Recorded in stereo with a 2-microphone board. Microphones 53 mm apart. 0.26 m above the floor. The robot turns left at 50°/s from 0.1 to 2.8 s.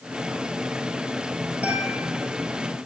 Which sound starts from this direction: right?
A guitar, at 1.6 s.